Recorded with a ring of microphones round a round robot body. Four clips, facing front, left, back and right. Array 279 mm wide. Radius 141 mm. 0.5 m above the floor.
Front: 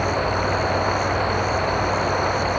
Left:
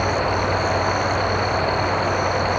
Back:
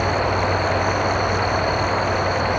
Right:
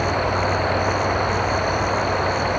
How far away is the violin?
No violin in this recording.